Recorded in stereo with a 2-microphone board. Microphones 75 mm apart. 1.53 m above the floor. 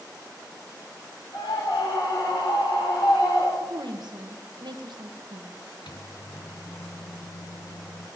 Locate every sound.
1.3 s a scream: 90° left, 5 m
3.6 s a woman speaking: 70° right (ahead or behind), 1.5 m
5.9 s a microwave: 70° left (ahead or behind), 1.1 m